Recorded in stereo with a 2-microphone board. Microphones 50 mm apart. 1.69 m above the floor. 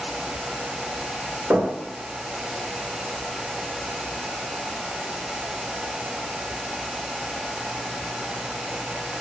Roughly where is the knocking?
Right.